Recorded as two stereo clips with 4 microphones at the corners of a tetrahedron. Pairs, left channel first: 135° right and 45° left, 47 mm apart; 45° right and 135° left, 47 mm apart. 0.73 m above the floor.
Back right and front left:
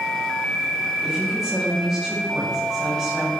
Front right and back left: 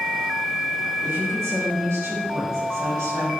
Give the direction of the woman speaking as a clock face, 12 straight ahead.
8 o'clock.